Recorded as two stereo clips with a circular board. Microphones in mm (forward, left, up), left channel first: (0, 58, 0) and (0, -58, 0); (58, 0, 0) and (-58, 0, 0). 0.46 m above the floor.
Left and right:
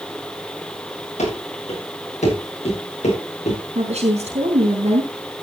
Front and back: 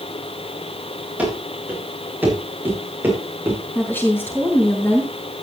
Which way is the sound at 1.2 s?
105° left.